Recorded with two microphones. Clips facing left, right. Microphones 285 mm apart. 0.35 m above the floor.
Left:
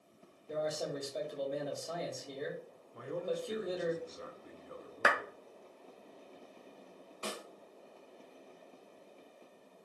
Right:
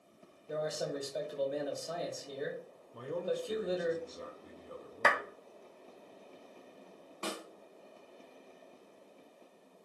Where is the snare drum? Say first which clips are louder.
Right 2 dB; 70° right (ahead or behind), 1.3 m.